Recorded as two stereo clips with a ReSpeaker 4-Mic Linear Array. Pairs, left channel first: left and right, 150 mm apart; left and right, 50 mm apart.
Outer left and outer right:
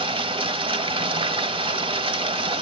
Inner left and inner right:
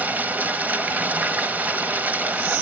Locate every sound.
0.0 s running water: 35° right (ahead or behind), 1.1 m